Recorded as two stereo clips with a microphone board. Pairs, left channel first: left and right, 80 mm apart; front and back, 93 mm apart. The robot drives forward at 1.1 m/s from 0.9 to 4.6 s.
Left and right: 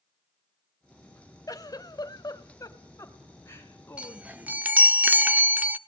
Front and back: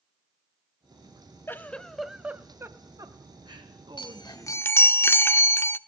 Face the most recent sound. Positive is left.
turn(degrees=-40)